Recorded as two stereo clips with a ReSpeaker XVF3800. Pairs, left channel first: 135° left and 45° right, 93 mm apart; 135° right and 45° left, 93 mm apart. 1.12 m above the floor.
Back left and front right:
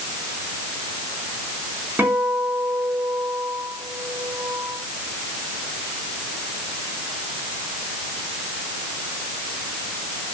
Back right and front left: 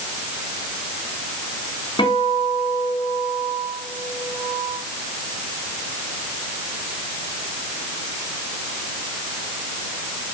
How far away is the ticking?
No ticking in this recording.